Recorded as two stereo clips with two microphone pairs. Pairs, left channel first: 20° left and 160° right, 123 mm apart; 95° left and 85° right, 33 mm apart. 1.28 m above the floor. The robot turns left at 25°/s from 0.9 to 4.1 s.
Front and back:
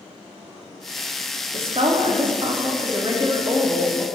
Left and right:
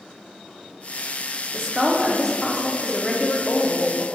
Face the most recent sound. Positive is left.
turn(degrees=130)